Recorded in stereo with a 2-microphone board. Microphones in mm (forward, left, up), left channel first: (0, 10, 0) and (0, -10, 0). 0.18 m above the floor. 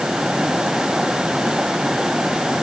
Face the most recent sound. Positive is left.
No sound to turn to.